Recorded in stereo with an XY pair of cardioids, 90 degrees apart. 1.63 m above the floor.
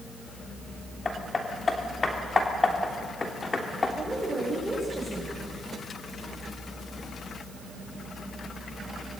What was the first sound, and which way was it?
Hammering, 35° left.